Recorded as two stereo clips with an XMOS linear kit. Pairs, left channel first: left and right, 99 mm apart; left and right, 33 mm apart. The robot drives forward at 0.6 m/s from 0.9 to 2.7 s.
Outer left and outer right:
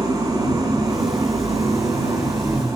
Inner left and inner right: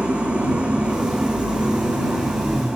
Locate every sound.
0.0 s an engine running: 35° right (ahead or behind), 6 m; by 2.8 s 30° right (ahead or behind), 7 m